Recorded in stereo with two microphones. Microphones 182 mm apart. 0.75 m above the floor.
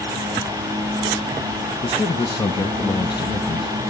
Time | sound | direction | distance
1.8 | a man speaking | 25° left (ahead or behind) | 0.8 m